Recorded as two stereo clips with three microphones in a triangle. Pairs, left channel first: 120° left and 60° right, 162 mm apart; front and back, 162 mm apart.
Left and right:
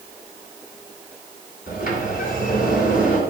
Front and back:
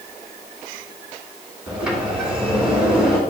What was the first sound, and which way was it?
A sliding door, 95° left.